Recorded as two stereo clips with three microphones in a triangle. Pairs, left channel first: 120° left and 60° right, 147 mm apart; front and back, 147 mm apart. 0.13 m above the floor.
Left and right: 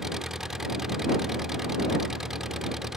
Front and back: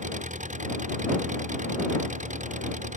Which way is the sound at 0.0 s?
145° right.